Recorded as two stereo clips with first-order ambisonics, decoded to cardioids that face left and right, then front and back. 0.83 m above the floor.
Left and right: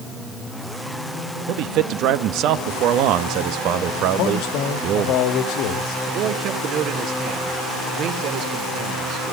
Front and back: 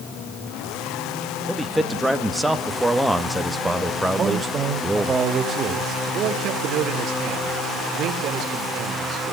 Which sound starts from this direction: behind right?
A man speaking, at 6.1 s.